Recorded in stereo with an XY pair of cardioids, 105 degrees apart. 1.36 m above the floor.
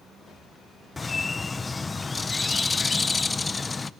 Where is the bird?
25° left, 0.8 m.